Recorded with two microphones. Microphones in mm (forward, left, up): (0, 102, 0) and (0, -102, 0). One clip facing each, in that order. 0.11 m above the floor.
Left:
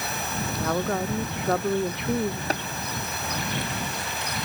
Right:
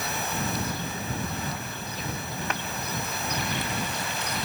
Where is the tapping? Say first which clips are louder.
Left 5 dB; 35° left (ahead or behind).